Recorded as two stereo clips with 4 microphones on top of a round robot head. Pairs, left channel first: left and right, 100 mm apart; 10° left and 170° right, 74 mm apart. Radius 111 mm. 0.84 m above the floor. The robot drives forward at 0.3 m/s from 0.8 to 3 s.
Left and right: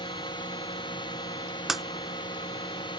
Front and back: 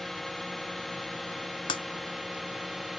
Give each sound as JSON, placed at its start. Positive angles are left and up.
{"t": 0.0, "sound": "a drone", "azimuth_deg": 95}
{"t": 1.7, "sound": "breaking glass", "azimuth_deg": -5}